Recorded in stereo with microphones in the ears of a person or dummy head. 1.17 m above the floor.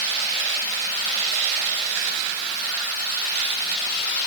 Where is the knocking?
No knocking in this recording.